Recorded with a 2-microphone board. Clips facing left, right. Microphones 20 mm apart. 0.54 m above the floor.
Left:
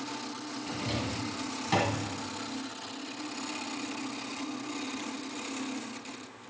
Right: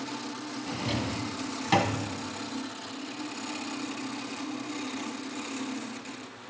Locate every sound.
0.7 s a drawer: 25° right (ahead or behind), 1.1 m